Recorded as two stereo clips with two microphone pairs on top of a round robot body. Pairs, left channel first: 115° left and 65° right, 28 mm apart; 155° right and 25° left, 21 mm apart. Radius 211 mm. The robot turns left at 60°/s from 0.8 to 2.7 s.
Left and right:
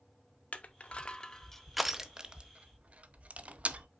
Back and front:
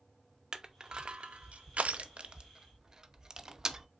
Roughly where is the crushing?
Left.